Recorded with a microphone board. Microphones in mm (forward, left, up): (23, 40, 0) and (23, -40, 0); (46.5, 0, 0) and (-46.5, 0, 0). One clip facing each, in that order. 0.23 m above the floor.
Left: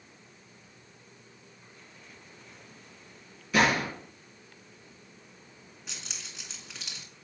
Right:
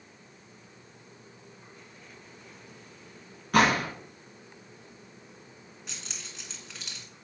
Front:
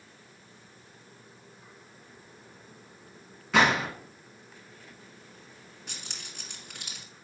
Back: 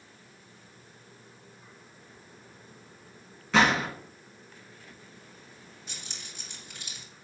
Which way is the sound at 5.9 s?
Straight ahead.